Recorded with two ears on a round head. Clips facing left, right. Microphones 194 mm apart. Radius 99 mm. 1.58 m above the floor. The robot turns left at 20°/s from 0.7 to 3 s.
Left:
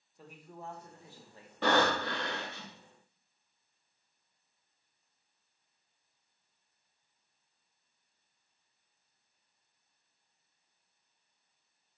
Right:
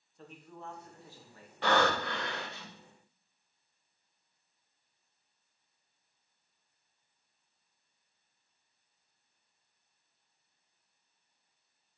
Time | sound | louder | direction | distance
0.2 | a man speaking | even | 10° left (ahead or behind) | 1.8 m
1.6 | breathing | even | 70° left (ahead or behind) | 3.5 m